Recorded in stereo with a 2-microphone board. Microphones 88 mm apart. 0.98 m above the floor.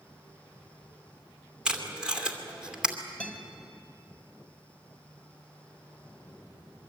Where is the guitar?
15° left (ahead or behind), 2.5 m.